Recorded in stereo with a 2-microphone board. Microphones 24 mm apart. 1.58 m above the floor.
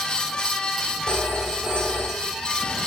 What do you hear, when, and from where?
1.1 s a phone ringing: 55° right (ahead or behind), 3 m